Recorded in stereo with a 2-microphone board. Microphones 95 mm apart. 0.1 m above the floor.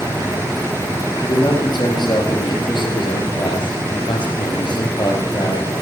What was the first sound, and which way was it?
A man speaking, 55° left (ahead or behind).